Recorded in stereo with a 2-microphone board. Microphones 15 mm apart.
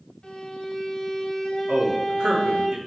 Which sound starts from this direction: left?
A violin, at 0.2 s.